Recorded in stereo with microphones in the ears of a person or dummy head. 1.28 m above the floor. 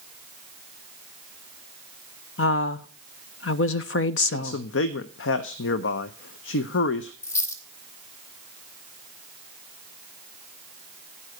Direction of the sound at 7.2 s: 20° left (ahead or behind).